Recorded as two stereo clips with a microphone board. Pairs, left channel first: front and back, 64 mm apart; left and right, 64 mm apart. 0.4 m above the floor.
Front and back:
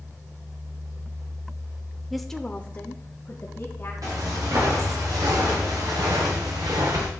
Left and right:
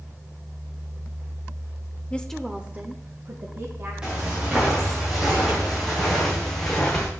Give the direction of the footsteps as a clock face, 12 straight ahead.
6 o'clock.